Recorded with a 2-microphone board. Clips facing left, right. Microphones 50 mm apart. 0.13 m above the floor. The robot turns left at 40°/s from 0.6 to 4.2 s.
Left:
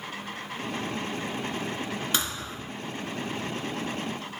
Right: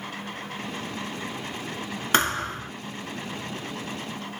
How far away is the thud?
About 0.8 m.